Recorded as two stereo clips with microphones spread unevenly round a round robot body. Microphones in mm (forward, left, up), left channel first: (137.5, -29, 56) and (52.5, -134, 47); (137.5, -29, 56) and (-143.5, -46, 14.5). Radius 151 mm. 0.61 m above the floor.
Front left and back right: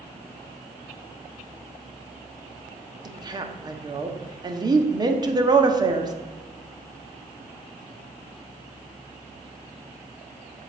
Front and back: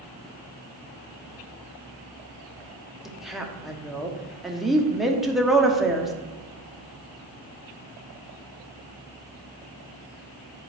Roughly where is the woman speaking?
Right.